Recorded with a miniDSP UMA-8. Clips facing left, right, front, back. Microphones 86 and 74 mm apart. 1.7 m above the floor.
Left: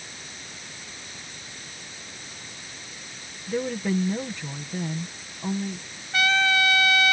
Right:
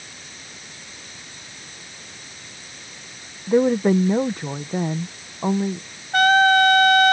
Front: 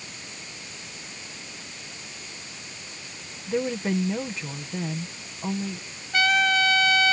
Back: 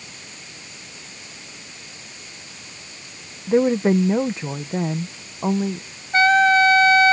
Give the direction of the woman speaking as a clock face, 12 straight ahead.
4 o'clock.